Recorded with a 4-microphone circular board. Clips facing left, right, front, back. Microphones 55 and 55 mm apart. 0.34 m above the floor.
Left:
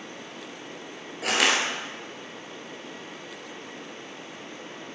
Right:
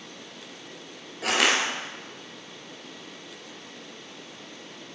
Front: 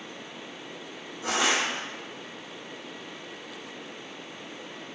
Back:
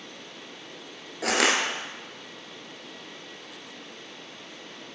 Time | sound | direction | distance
1.2 | crushing | straight behind | 1.1 m